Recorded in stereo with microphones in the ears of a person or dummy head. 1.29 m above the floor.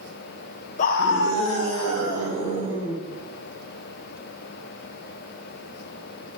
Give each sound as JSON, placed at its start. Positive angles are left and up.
{"t": 0.8, "sound": "a scream", "side_deg": 40, "distance_m": 0.6}